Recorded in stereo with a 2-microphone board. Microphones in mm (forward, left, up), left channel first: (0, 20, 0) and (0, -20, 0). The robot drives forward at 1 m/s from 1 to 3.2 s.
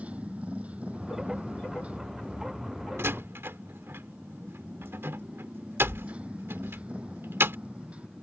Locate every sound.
0.0 s a motorcycle: 30° right (ahead or behind)
3.0 s a door slam: 85° right; by 7.6 s 80° right